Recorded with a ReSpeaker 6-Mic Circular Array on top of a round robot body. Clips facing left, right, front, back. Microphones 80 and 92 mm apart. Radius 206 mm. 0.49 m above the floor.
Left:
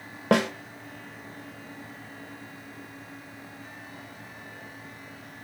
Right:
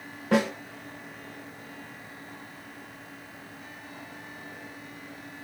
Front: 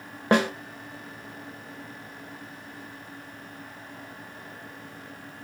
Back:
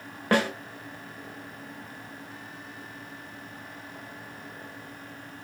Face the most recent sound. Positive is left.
turn(degrees=70)